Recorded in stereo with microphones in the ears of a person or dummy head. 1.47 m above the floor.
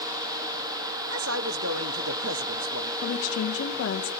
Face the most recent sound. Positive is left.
turn(degrees=80)